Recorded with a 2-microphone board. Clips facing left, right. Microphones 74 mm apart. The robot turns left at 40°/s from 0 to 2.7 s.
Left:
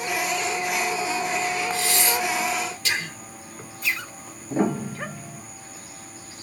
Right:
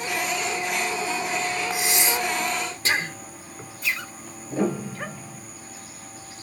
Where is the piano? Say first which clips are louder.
Left 2 dB; 30° left (ahead or behind), 1.2 m.